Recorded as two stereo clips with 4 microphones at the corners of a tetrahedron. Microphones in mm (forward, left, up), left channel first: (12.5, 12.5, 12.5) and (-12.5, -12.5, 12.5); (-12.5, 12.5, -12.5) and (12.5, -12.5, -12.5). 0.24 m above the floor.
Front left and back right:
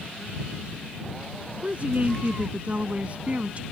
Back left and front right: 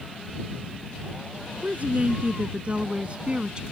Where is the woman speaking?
85° right; by 3.6 s 95° right.